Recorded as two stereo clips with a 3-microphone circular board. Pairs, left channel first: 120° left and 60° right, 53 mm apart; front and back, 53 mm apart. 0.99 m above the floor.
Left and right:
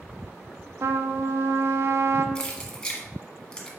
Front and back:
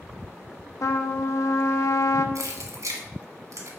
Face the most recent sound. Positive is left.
turn(degrees=-160)